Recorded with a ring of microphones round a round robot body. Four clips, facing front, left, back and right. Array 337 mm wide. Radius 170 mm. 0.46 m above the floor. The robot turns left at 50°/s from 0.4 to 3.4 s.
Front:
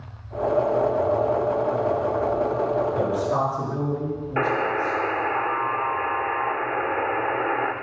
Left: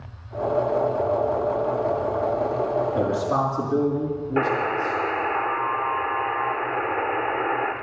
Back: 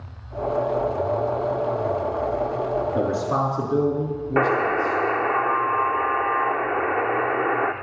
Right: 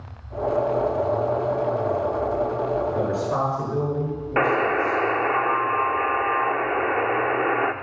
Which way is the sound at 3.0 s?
170° left.